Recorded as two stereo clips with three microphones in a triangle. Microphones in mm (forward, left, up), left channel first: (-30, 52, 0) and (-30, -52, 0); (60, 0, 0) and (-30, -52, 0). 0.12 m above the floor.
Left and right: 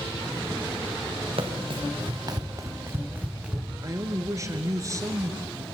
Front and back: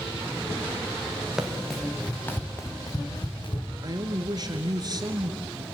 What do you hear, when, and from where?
1.4 s running footsteps: 65° right, 3.5 m; by 3.7 s 5° right, 3.5 m
3.8 s a man speaking: 130° right, 1.5 m